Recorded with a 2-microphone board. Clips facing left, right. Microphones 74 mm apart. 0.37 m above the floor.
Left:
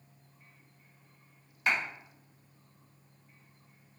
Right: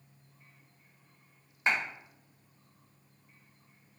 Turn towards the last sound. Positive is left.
turn(degrees=-30)  # may be behind; listen again after turning